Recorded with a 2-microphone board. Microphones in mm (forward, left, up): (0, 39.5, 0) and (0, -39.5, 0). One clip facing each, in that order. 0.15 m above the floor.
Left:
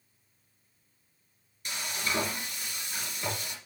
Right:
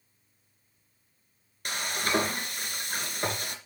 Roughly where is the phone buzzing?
No phone buzzing in this recording.